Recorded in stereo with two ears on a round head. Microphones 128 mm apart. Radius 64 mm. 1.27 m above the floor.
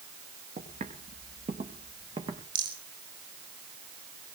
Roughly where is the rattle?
Right.